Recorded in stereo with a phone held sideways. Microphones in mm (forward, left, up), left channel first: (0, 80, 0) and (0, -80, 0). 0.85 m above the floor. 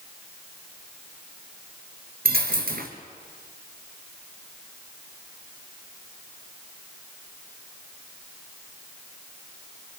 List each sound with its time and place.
2.2 s a dropped coin: 70° right (ahead or behind), 1.9 m